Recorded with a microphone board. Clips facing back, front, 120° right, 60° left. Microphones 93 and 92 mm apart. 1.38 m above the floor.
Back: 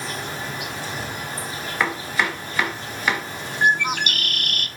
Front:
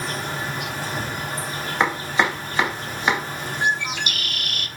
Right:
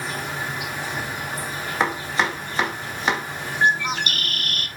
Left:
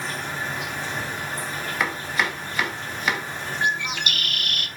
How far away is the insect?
About 3.5 m.